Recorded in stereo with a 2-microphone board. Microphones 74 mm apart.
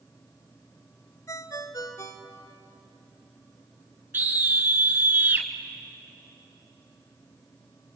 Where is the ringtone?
50° left (ahead or behind), 1.5 m.